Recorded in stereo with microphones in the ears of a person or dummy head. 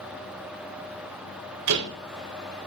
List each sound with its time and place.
1.7 s a door slam: 60° right (ahead or behind), 4 m